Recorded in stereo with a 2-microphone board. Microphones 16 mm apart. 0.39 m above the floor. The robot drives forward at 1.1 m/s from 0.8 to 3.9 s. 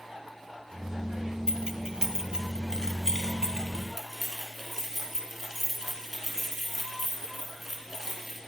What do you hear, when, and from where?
1.5 s keys jangling: 55° right (ahead or behind), 1.5 m; by 8.4 s 20° right (ahead or behind), 3.5 m